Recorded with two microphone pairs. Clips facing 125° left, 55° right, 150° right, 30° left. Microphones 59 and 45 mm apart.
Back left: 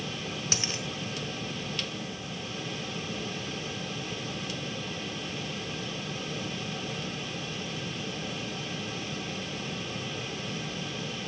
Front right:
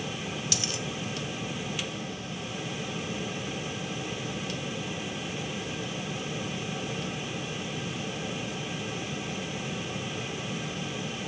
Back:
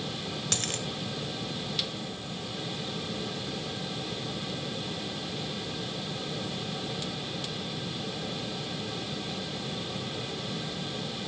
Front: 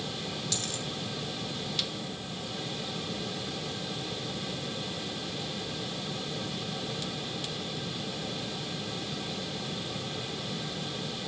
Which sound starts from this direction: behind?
A dropped coin, at 0.5 s.